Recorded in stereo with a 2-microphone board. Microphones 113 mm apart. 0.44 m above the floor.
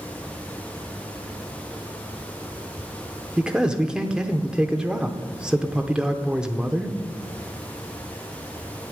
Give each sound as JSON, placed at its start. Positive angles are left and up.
{"t": 3.4, "sound": "a man speaking", "side_deg": -5, "distance_m": 0.7}